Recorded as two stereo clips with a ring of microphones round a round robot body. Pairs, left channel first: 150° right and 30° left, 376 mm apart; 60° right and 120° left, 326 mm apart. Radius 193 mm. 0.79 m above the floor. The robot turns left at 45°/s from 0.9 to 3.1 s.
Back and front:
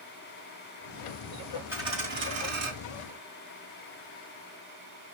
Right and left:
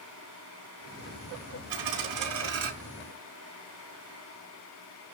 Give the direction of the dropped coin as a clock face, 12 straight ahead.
8 o'clock.